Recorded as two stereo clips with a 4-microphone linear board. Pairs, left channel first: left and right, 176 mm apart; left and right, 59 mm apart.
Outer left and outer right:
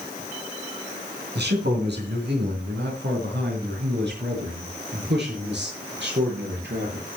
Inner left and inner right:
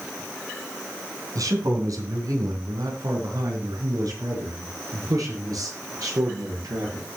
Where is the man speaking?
75° right (ahead or behind), 3.5 m.